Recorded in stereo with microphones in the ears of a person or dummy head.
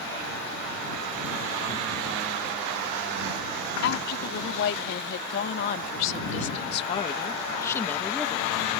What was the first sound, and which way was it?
A woman speaking, 75° left (ahead or behind).